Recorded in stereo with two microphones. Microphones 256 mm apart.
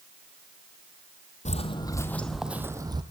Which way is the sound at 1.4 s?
25° left (ahead or behind).